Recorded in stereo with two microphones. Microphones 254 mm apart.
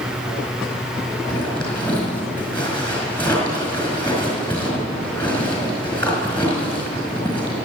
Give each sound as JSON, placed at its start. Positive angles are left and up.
{"t": 1.3, "sound": "a zipper", "side_deg": 20, "distance_m": 4.5}